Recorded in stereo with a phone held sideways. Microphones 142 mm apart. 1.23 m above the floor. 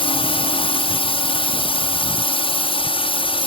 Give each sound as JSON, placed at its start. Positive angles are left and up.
{"t": 0.0, "sound": "a drone", "side_deg": 40}